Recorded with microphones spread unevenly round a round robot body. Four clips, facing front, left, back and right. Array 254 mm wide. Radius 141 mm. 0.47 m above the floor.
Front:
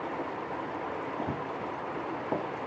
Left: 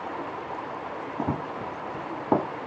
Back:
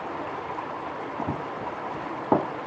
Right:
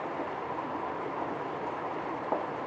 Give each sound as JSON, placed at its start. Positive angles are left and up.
{"t": 1.2, "sound": "running footsteps", "azimuth_deg": 95}